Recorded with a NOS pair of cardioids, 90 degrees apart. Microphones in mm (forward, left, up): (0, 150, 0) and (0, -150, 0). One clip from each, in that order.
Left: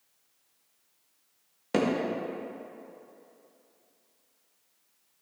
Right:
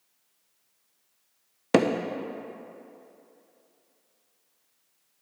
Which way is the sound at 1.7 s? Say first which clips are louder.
Right 5 dB; 50° right.